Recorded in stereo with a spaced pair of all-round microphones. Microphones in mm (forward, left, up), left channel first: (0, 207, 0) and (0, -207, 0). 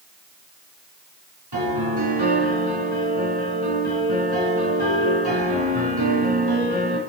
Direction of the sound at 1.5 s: 70° right (ahead or behind).